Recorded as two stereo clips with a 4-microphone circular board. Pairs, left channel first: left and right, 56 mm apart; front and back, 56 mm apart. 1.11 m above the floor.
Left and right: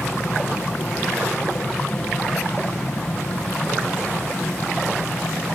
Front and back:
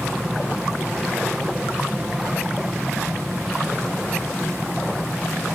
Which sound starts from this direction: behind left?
An aircraft, at 0.0 s.